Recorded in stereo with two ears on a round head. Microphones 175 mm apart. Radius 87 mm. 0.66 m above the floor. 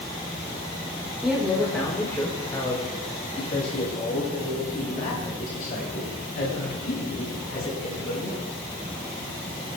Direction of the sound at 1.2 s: Centre (ahead or behind).